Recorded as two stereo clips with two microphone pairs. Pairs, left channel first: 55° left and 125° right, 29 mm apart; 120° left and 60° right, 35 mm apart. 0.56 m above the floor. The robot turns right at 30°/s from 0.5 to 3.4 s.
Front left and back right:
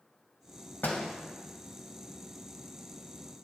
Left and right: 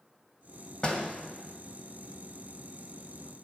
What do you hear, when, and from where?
0.8 s a door slam: 55° left, 2.5 m; by 1.1 s 65° left, 2.5 m